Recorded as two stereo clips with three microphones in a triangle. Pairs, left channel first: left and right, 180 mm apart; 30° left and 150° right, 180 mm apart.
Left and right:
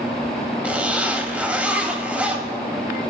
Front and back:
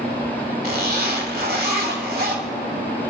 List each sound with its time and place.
0.6 s a zipper: 170° right, 2.5 m